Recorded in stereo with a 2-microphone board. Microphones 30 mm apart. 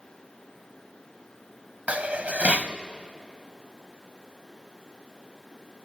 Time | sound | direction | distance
1.9 | dishes clattering | 50° right (ahead or behind) | 1.0 m